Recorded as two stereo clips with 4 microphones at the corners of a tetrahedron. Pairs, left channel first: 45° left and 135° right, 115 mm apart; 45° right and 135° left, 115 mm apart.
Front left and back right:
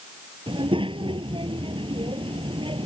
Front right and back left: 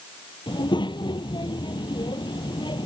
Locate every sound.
0.5 s a child speaking: 95° right